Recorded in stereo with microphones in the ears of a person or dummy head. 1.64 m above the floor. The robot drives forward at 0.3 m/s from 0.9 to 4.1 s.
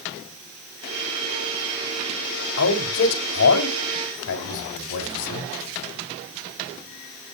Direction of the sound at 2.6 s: 75° left (ahead or behind).